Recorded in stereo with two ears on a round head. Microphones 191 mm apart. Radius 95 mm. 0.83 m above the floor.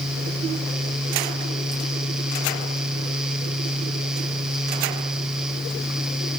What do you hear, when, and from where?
Only background noise.